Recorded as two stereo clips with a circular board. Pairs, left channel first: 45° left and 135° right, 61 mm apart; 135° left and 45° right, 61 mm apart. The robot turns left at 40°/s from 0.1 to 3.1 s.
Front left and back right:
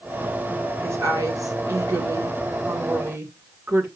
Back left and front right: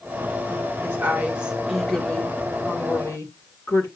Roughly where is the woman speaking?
Right.